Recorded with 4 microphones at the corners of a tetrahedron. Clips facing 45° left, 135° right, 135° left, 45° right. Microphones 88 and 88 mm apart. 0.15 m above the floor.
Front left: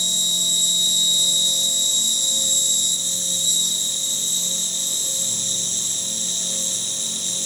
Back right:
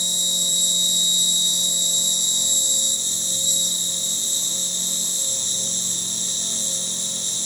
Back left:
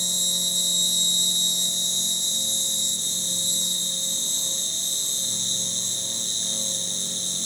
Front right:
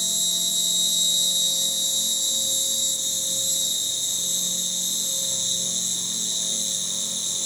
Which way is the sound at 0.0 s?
160° left.